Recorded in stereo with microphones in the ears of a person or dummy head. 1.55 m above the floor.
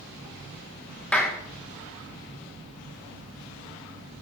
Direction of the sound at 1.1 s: 10° left (ahead or behind).